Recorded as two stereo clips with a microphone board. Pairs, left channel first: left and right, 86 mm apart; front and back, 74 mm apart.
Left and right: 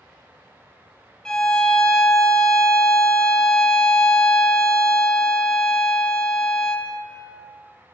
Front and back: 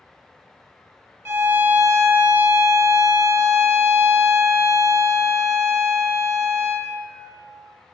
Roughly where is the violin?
Behind.